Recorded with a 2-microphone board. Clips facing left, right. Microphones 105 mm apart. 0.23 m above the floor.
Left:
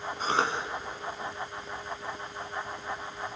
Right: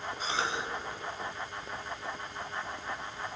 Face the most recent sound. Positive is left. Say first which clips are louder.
# left 6 dB
turn(degrees=55)  # may be behind; listen again after turning